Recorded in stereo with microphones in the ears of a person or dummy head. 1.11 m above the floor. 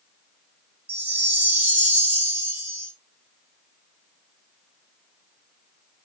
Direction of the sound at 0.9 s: 10° right (ahead or behind).